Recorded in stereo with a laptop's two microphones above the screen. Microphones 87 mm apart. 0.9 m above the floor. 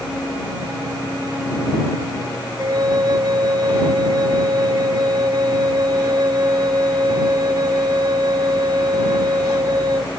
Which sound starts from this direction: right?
A flute, at 2.6 s.